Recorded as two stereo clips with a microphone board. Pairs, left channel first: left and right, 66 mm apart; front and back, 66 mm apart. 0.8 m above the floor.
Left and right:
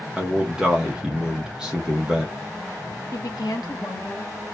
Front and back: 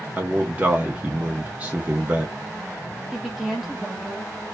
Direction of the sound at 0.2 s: 155° right.